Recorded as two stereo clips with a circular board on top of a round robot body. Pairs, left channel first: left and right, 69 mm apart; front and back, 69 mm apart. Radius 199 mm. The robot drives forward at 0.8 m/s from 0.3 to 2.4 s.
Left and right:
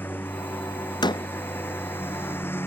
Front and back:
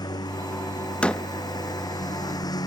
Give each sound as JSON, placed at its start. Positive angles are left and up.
{"t": 0.0, "sound": "a lawn mower", "azimuth_deg": 25}
{"t": 1.0, "sound": "a door slam", "azimuth_deg": 75}